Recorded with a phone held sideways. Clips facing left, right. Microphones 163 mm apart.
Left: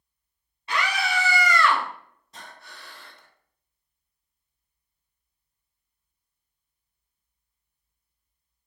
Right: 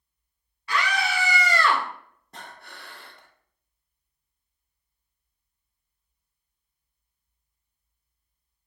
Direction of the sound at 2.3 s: 55° right (ahead or behind).